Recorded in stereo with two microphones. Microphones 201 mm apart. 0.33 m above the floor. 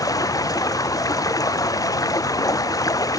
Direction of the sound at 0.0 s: 15° left (ahead or behind).